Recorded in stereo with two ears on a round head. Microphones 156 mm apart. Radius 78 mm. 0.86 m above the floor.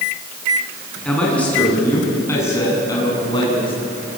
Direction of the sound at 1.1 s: 5° left (ahead or behind).